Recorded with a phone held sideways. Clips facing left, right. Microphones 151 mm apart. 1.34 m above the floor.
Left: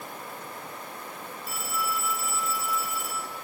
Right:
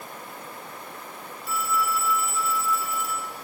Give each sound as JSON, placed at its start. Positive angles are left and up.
{"t": 1.5, "sound": "a phone ringing", "side_deg": 45, "distance_m": 5.0}